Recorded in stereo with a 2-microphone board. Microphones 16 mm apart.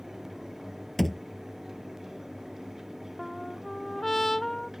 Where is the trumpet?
15° left (ahead or behind).